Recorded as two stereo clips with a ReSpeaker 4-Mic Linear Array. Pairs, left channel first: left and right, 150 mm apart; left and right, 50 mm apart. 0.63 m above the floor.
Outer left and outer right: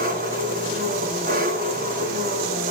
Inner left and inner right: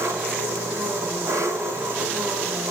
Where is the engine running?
75° right (ahead or behind), 3.5 m.